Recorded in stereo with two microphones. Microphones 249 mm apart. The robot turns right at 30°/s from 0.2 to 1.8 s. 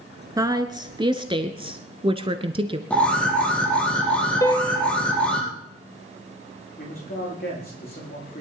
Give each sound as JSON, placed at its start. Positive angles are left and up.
{"t": 0.4, "sound": "a woman speaking", "side_deg": -15, "distance_m": 1.1}
{"t": 2.9, "sound": "an alarm", "side_deg": 5, "distance_m": 4.0}
{"t": 4.4, "sound": "a piano", "side_deg": 15, "distance_m": 1.0}
{"t": 6.8, "sound": "a man speaking", "side_deg": 40, "distance_m": 8.0}